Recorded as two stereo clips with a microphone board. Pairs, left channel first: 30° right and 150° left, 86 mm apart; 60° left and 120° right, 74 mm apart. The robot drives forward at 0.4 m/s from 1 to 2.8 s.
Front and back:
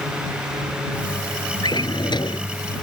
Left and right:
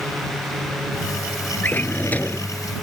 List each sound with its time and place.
1.6 s a drawer: 5° right